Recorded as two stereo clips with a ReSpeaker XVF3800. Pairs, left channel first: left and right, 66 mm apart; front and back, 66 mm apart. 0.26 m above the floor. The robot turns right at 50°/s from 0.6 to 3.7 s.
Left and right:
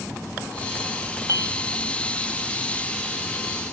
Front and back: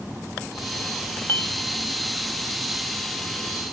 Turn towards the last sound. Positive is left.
turn(degrees=65)